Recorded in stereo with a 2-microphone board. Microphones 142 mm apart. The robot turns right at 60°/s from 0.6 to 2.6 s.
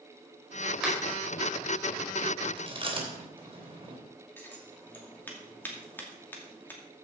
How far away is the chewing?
About 3 m.